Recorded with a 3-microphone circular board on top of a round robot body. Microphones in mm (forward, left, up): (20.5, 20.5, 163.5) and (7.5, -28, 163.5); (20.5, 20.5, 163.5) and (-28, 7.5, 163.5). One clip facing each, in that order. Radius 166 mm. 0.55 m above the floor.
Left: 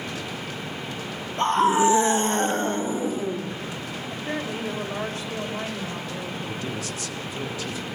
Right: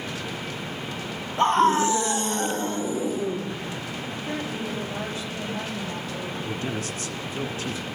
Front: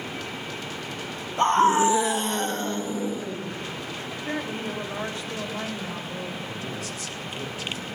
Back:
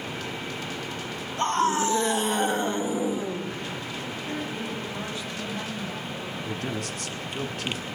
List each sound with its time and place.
1.4 s a scream: 25° right, 1.0 m; by 3.5 s 130° left, 2 m
4.1 s a woman speaking: 45° left, 4 m
6.5 s a man speaking: 150° right, 1.1 m